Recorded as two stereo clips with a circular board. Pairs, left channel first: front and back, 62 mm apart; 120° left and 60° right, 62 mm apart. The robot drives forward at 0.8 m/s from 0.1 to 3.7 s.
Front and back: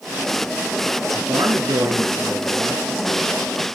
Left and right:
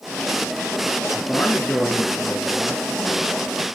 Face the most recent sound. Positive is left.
turn(degrees=-170)